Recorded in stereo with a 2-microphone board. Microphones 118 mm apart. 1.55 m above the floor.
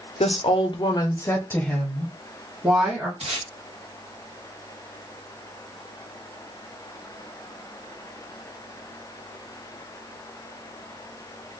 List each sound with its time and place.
0.2 s a woman speaking: 65° left (ahead or behind), 0.7 m; by 3.1 s 10° right (ahead or behind), 1.5 m
3.2 s tape being pulled: 60° right (ahead or behind), 1.1 m